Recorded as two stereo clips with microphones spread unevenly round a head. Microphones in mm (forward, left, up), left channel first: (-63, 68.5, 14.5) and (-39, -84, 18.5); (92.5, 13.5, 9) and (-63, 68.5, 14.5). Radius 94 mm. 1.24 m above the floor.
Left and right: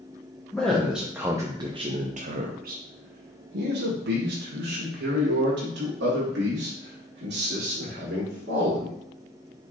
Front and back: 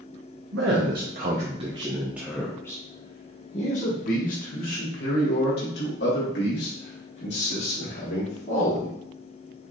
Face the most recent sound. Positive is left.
turn(degrees=-50)